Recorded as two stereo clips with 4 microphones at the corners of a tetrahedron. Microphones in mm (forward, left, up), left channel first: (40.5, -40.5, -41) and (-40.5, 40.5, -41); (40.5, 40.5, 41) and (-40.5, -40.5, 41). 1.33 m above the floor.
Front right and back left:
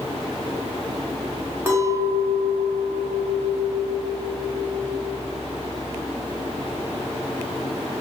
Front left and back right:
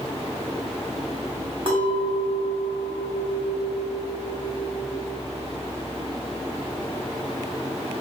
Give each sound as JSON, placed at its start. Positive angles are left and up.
{"t": 1.7, "sound": "a clink", "azimuth_deg": -160, "distance_m": 1.2}